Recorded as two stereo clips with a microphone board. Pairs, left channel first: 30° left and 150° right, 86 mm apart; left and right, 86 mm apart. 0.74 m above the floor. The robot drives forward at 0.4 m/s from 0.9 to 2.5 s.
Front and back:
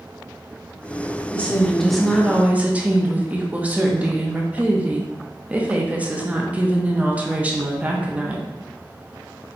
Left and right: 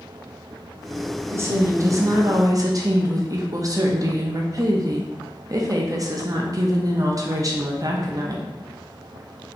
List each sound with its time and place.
1.3 s a woman speaking: 40° right, 0.8 m; by 8.5 s 85° right, 0.6 m